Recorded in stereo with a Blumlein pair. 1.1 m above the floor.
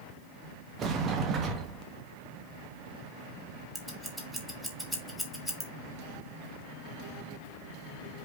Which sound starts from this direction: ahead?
Scissors, at 3.8 s.